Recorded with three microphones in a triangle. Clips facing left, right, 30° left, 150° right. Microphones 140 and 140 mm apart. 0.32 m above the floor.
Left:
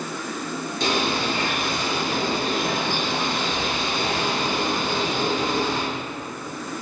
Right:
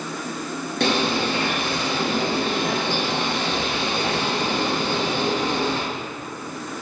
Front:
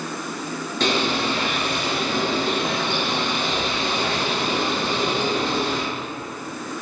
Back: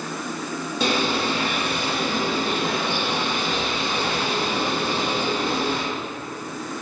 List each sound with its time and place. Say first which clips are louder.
0.8 s a bird: right 3 dB, front 1 dB; 70° right, 2.5 m